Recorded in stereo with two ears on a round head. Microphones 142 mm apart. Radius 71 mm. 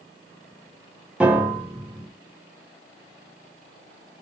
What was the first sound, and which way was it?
A piano, 5° right (ahead or behind).